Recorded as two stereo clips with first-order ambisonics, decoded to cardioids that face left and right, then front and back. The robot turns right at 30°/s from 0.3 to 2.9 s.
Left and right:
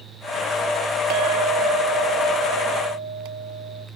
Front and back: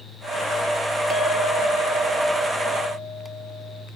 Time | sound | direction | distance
1.1 | a clink | 115° right | 0.7 m